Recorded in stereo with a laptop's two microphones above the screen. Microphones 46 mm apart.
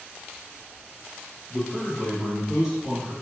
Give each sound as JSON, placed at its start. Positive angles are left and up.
{"t": 1.5, "sound": "a man speaking", "side_deg": 25, "distance_m": 0.9}